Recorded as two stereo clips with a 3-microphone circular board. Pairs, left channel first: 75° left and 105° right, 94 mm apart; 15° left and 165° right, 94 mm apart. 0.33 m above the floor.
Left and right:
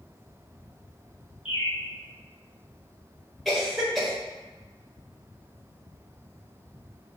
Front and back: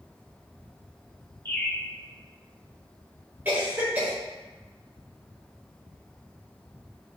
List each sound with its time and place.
1.4 s a bird: 80° left, 1.9 m
3.5 s a cough: 165° left, 1.3 m